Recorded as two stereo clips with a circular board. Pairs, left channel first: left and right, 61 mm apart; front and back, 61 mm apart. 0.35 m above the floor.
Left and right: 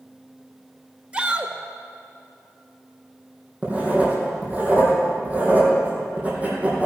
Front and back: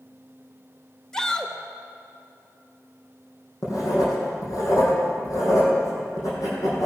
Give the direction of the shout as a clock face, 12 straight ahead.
2 o'clock.